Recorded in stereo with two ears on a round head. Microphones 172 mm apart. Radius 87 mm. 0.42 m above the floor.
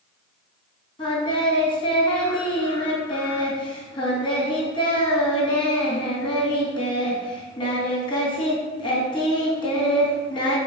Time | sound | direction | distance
1.0 | singing | 25° left (ahead or behind) | 3 m